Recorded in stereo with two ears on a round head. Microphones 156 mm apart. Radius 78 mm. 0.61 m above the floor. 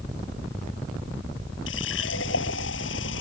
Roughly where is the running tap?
Left.